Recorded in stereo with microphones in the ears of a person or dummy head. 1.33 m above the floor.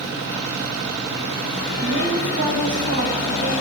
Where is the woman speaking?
65° right (ahead or behind), 6.5 m.